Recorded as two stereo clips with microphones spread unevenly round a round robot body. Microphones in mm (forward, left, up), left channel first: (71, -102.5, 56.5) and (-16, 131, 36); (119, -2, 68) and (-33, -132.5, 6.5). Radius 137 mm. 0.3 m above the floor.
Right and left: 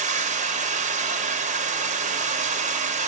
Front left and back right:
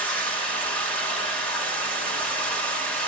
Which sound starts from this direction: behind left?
Running water, at 0.0 s.